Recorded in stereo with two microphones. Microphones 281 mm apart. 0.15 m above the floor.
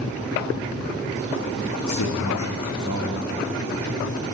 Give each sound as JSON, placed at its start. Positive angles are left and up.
{"t": 1.8, "sound": "a man speaking", "side_deg": 75, "distance_m": 7.0}